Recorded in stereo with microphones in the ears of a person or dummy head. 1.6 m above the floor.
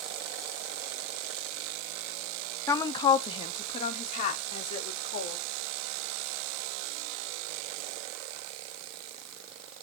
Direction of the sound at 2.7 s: 20° left (ahead or behind).